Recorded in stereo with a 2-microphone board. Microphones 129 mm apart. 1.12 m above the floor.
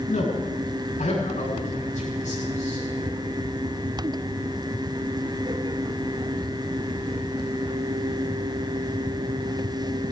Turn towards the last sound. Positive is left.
turn(degrees=65)  # may be behind; listen again after turning